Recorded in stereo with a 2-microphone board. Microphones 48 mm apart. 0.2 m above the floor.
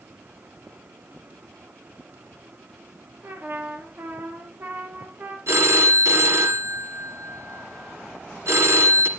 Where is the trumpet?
40° right (ahead or behind), 3 m.